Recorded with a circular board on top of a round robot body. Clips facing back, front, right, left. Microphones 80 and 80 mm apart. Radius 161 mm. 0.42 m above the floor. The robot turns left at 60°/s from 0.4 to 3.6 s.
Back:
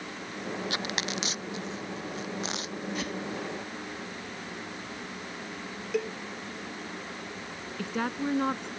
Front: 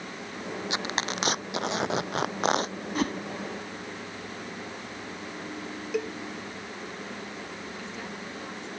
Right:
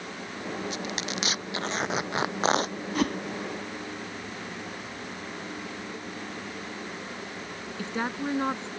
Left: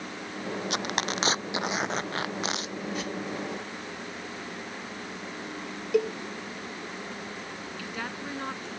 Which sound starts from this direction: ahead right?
A whoosh, at 3.0 s.